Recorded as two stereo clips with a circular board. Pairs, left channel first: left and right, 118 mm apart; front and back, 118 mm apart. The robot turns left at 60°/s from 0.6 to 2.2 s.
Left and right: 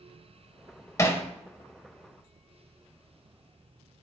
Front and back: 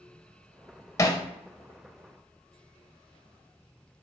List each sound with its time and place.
1.0 s hammering: 40° left, 0.9 m; by 1.2 s 25° left, 0.9 m